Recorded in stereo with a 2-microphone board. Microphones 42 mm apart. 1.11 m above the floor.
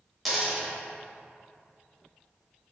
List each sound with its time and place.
0.2 s a dropped coin: centre (ahead or behind), 1.0 m